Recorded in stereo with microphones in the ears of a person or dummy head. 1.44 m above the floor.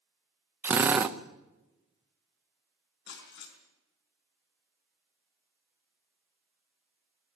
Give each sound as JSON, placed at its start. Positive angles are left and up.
{"t": 0.6, "sound": "a drill", "side_deg": -15, "distance_m": 0.9}
{"t": 3.1, "sound": "breaking glass", "side_deg": 65, "distance_m": 5.0}